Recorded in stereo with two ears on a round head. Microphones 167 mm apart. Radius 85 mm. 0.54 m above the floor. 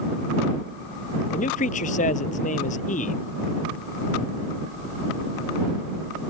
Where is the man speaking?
40° left (ahead or behind).